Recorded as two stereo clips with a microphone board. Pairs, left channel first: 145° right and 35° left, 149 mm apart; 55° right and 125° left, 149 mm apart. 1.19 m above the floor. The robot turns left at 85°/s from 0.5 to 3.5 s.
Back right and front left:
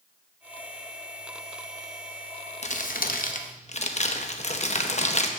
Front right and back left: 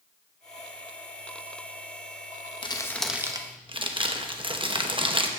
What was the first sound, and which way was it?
Crumpling, 110° right.